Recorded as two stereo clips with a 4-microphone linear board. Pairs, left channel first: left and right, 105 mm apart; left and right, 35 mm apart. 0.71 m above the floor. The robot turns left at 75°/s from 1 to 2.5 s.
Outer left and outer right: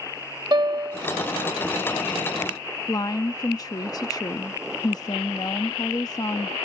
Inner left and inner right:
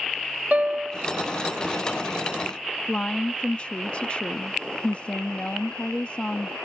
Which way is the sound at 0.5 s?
45° right (ahead or behind).